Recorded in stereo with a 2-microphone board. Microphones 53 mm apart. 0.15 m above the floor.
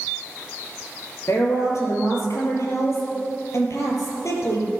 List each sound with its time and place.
1.3 s a woman speaking: 65° left (ahead or behind), 4 m